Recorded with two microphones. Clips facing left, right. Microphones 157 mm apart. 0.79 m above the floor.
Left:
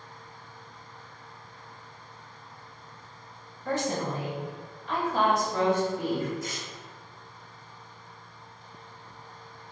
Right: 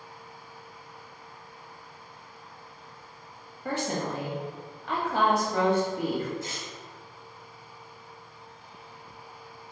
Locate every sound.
3.6 s a woman speaking: 60° right (ahead or behind), 0.9 m
6.4 s tearing paper: 30° right (ahead or behind), 0.5 m